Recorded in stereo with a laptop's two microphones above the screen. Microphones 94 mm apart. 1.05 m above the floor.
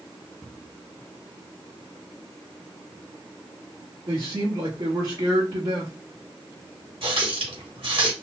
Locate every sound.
4.1 s a man speaking: 55° right (ahead or behind), 1.1 m
7.0 s a running tap: 70° right (ahead or behind), 1.2 m